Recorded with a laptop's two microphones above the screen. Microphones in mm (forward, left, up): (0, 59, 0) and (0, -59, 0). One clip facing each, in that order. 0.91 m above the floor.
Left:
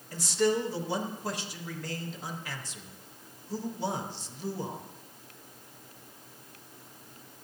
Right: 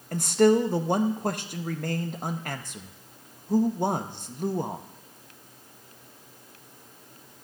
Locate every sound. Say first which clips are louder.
0.1 s a man speaking: right 7 dB; 55° right (ahead or behind), 0.6 m